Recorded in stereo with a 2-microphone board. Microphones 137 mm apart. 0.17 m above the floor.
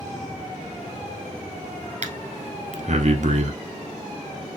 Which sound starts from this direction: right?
Breathing, at 2.0 s.